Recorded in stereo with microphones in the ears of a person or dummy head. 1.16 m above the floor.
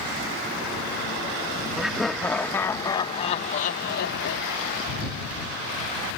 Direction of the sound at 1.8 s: 5° right (ahead or behind).